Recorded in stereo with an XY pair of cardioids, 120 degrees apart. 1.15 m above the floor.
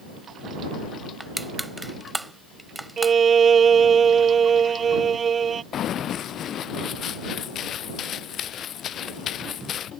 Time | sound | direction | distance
1.2 | crushing | 5° right | ?
3.0 | a violin | 35° right | ?
5.7 | running footsteps | 55° left | ?